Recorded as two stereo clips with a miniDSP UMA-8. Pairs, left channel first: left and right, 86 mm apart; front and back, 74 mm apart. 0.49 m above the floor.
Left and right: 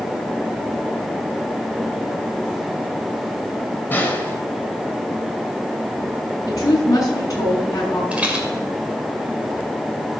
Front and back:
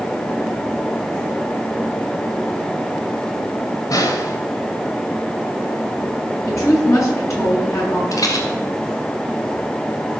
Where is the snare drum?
25° left, 2.0 m.